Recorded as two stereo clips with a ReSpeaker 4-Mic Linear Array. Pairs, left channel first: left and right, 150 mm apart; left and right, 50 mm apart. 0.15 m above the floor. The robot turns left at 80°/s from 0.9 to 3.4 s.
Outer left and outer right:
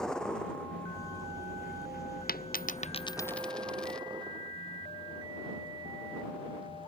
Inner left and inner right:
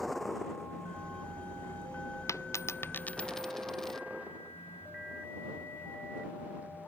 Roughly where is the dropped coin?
Left.